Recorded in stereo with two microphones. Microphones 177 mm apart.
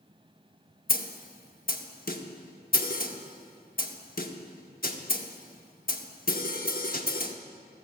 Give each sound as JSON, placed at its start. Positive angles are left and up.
{"t": 0.9, "sound": "a snare drum", "side_deg": 60, "distance_m": 0.8}